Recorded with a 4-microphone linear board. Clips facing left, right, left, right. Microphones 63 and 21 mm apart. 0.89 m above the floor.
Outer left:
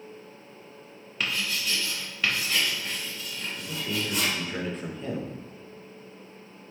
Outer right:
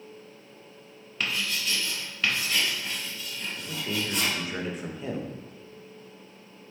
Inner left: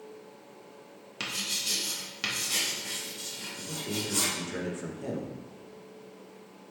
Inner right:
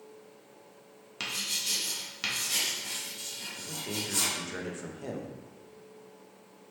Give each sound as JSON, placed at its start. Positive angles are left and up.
{"t": 1.2, "sound": "writing", "side_deg": 5, "distance_m": 0.8}
{"t": 3.6, "sound": "a man speaking", "side_deg": -10, "distance_m": 0.6}